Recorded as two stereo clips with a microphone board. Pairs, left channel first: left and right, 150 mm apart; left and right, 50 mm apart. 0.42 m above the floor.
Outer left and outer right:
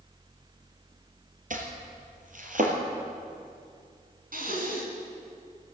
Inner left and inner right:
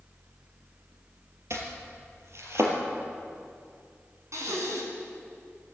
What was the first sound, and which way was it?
Chopping, 65° right (ahead or behind).